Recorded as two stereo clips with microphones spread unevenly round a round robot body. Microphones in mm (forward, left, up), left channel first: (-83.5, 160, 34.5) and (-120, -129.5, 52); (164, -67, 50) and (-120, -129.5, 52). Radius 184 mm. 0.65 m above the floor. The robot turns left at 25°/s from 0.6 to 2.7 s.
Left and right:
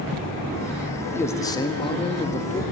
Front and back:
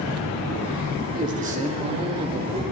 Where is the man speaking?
155° left, 0.9 m; by 2.6 s 120° left, 0.9 m.